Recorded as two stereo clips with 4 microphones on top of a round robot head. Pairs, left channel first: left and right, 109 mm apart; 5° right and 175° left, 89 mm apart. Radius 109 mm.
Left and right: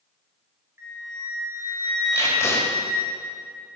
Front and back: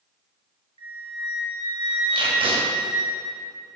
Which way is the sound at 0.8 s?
155° right.